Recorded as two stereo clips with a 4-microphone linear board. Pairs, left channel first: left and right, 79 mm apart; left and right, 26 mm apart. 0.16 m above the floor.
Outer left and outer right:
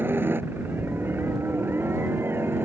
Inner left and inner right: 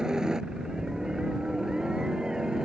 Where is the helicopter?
25° right (ahead or behind); by 2.7 s 30° right (ahead or behind).